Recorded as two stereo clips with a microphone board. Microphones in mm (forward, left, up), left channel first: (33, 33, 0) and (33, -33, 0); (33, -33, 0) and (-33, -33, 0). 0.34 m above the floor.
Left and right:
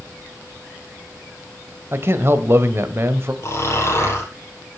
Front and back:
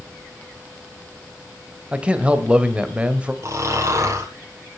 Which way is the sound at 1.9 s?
120° right.